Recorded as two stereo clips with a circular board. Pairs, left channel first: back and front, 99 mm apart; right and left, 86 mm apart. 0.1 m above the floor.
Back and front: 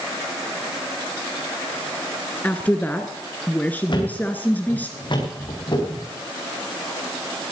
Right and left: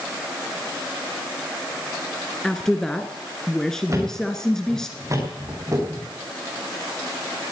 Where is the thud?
140° left, 5.5 m.